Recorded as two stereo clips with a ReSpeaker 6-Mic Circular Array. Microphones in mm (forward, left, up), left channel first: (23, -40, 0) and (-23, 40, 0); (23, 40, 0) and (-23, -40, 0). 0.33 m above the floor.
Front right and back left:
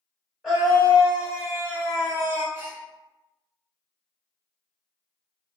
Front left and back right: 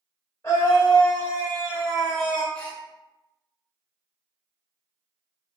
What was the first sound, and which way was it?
A scream, 35° left.